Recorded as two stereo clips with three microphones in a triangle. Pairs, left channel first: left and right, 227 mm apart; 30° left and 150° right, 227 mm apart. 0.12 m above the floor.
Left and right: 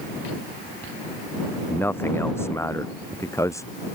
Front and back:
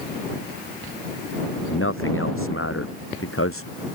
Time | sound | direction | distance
1.7 | a man speaking | 10° left | ?